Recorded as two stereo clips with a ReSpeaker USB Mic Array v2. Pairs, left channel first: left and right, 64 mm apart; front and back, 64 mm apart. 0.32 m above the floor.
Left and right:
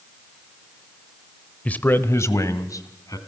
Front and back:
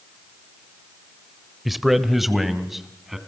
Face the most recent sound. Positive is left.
turn(degrees=95)